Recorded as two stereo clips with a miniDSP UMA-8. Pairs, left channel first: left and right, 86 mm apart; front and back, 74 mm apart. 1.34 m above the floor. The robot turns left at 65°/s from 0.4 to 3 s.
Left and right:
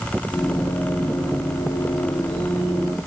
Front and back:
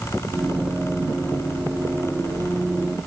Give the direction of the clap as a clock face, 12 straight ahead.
No clap in this recording.